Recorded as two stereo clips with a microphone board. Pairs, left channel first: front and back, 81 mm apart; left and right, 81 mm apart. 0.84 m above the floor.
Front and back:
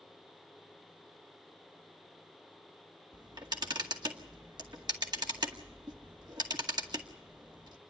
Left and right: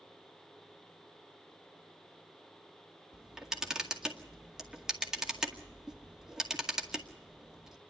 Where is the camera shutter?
170° right, 2.0 m.